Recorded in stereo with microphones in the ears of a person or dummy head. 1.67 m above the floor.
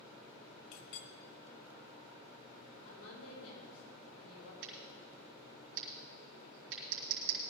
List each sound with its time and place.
0.7 s a clink: 50° left (ahead or behind), 0.8 m
2.9 s a woman speaking: 80° left, 5 m
4.6 s scissors: 85° right, 3 m